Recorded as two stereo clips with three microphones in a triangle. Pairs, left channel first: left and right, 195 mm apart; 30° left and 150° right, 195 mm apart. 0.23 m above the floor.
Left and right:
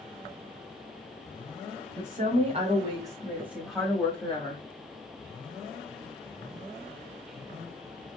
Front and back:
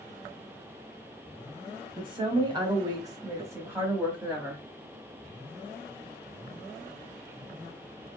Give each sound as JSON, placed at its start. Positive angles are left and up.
{"t": 2.0, "sound": "a woman speaking", "azimuth_deg": -100, "distance_m": 1.4}